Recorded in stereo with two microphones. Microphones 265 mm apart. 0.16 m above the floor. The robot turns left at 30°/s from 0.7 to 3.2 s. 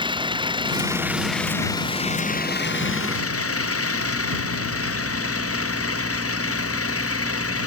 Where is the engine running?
160° right; by 7.7 s 125° left.